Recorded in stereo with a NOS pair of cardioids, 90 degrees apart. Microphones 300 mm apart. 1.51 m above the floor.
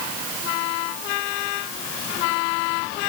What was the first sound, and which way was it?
Only background noise.